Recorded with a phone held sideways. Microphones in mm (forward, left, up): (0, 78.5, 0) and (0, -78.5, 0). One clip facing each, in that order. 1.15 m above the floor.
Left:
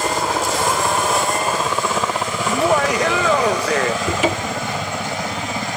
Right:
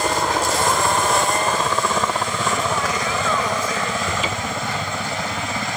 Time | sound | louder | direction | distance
0.0 | a helicopter | even | 5° left (ahead or behind) | ?
2.5 | laughter | left 9 dB | 75° left (ahead or behind) | ?
4.0 | a cupboard door | left 5 dB | 80° left | ?